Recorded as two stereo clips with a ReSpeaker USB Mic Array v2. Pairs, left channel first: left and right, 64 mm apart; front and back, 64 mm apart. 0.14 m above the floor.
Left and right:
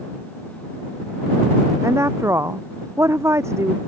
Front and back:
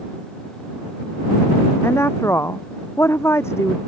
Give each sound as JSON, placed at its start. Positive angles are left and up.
{"t": 1.8, "sound": "a woman speaking", "azimuth_deg": -45}